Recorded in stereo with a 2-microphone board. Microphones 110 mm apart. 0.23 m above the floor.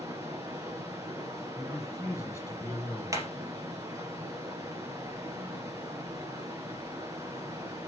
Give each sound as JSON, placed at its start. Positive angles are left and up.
{"t": 0.0, "sound": "running water", "side_deg": -30, "distance_m": 2.5}
{"t": 1.6, "sound": "a man speaking", "side_deg": 25, "distance_m": 3.5}
{"t": 3.1, "sound": "hammering", "side_deg": -30, "distance_m": 3.0}